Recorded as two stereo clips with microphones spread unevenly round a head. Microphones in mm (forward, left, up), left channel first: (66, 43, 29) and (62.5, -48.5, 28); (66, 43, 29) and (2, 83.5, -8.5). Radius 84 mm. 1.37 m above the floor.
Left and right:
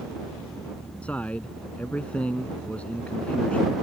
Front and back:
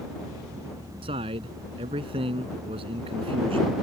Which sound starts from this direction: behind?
A man speaking, at 1.0 s.